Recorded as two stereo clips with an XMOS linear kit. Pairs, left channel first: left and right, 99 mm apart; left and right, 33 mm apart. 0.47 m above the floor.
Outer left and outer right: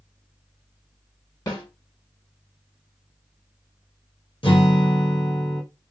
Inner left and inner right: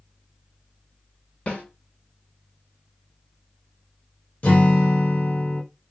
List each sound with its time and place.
1.5 s a snare drum: 45° left (ahead or behind), 3 m
4.4 s a guitar: 60° left (ahead or behind), 2.5 m